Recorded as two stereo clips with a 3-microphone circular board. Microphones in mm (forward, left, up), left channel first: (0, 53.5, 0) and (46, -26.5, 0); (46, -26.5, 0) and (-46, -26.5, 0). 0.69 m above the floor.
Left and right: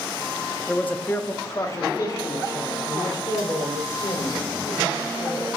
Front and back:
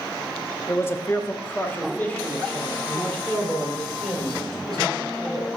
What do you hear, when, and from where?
0.7 s a man speaking: 45° left, 0.6 m; by 5.5 s 80° left, 3 m